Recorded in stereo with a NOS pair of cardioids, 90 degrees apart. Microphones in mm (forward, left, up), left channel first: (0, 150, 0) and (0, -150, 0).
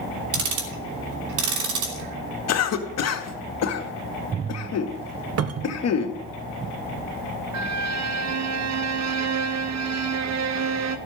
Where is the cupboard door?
50° right, 1.0 m.